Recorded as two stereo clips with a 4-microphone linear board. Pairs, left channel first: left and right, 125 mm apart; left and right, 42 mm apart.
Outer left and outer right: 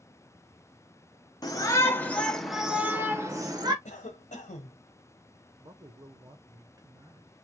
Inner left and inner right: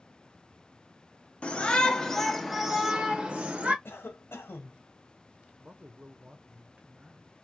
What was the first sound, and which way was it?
A shout, 30° left (ahead or behind).